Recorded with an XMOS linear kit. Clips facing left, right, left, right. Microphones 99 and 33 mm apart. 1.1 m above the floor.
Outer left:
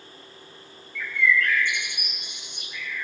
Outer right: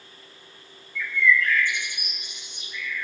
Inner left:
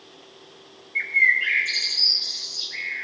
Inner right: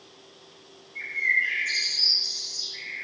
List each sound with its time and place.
0.9 s a bird: 60° left (ahead or behind), 2 m